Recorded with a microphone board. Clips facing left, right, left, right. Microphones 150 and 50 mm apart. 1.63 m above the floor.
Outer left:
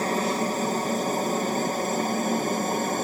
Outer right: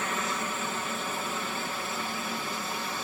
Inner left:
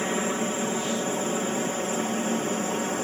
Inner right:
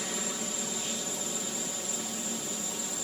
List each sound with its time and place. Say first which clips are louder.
0.0 s a helicopter: outer left 8 dB, inner left 10 dB; 40° left (ahead or behind); by 3.0 s 45° left (ahead or behind)